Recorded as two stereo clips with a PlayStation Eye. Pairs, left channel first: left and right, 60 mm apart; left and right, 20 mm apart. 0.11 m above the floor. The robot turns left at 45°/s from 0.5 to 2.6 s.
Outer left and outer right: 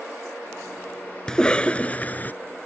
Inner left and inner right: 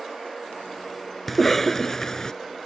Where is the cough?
160° left; by 2.3 s 110° left.